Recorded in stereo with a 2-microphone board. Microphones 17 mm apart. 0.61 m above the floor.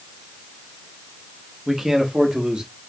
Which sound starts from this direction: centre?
A man speaking, at 1.7 s.